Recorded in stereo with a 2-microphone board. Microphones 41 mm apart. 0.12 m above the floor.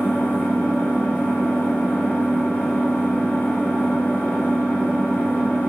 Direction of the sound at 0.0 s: 65° left (ahead or behind).